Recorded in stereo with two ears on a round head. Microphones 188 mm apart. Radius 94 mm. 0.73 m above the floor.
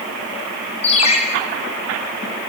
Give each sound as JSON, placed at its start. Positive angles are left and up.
{"t": 0.8, "sound": "a ringtone", "side_deg": 30, "distance_m": 6.0}